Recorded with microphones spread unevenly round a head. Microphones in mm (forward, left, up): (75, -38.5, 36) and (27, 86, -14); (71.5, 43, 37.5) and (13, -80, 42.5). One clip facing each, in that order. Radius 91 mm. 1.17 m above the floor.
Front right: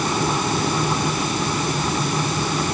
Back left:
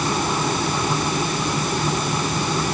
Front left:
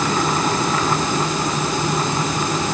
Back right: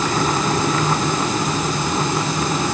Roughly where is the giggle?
I don't hear a giggle.